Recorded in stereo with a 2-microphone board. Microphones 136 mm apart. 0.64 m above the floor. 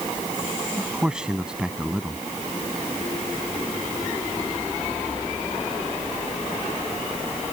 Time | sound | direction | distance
0.8 | a man speaking | 5° right (ahead or behind) | ?